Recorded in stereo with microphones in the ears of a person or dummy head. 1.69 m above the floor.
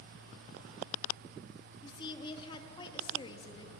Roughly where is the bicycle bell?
No bicycle bell in this recording.